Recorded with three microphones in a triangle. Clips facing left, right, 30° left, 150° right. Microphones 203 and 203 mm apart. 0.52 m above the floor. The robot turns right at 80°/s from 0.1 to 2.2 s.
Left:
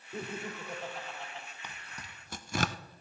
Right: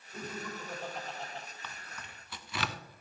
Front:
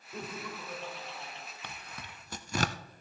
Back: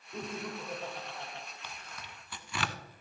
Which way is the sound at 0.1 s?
115° left.